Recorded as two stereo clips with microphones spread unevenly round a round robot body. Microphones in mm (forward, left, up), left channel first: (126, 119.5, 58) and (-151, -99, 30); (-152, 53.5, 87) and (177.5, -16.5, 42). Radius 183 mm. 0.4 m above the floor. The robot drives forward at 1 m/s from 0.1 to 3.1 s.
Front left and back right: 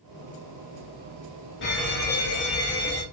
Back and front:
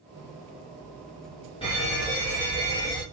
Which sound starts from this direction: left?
A fire alarm, at 1.6 s.